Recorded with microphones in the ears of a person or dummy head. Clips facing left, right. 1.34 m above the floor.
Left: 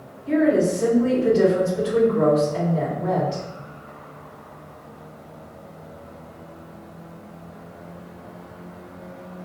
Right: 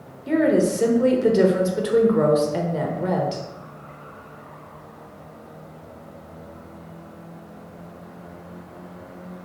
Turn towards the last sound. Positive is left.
turn(degrees=-55)  # may be behind; listen again after turning